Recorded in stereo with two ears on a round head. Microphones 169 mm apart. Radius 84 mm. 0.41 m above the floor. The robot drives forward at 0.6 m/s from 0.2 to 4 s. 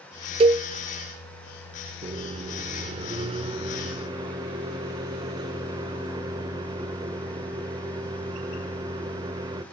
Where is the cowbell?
30° right (ahead or behind), 0.5 m.